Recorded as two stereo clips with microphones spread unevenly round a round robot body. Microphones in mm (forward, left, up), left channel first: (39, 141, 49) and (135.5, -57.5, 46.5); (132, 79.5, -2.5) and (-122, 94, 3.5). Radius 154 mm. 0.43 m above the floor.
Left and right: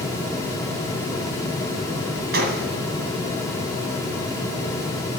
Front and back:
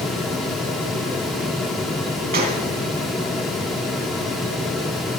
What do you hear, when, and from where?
2.3 s a gunshot: 120° right, 1.4 m